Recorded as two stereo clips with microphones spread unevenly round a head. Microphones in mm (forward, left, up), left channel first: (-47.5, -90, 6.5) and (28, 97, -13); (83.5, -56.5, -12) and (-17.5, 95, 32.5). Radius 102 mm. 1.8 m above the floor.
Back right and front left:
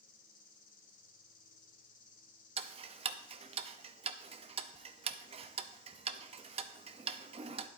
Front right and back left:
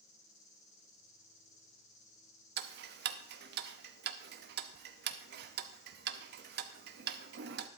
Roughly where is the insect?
Right.